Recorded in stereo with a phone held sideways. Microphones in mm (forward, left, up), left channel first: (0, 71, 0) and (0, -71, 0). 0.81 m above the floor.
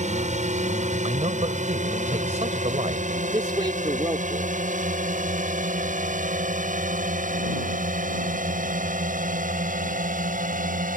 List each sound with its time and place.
0.0 s a drone: 55° right (ahead or behind); by 11.0 s 70° right (ahead or behind)
1.0 s a man speaking: 55° right (ahead or behind)
3.3 s a man speaking: 35° right (ahead or behind)